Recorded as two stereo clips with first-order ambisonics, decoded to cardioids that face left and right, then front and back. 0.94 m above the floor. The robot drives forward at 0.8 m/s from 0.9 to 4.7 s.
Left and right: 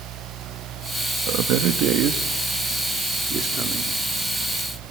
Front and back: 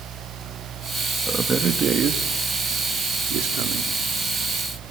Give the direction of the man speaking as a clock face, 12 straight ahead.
3 o'clock.